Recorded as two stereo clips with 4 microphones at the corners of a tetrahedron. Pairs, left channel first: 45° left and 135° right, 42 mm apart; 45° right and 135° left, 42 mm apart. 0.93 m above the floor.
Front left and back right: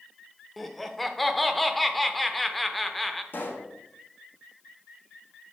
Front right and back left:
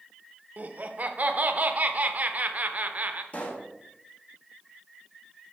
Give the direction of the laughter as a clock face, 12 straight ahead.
8 o'clock.